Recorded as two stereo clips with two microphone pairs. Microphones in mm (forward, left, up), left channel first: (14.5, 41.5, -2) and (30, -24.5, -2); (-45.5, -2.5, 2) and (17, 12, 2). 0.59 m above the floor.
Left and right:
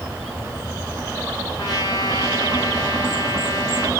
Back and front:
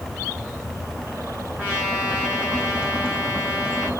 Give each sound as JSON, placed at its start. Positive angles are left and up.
{"t": 1.6, "sound": "a trumpet", "azimuth_deg": 85, "distance_m": 8.5}